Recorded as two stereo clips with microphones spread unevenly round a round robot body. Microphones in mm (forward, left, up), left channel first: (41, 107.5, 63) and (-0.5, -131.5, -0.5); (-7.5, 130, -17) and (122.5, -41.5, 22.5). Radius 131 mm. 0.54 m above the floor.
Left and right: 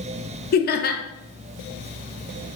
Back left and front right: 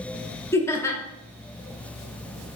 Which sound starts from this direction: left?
Laughter, at 0.5 s.